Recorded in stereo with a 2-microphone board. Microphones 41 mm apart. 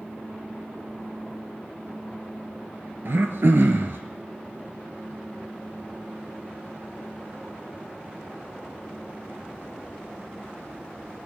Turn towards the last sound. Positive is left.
turn(degrees=-65)  # may be behind; listen again after turning